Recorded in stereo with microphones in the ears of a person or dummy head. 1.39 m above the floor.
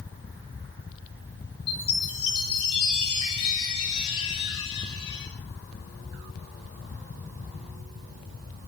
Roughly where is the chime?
Left.